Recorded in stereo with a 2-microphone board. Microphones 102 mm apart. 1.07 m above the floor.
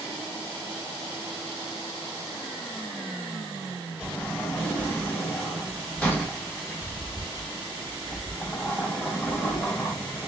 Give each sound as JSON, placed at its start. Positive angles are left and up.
{"t": 4.0, "sound": "a sliding door", "side_deg": 20, "distance_m": 2.5}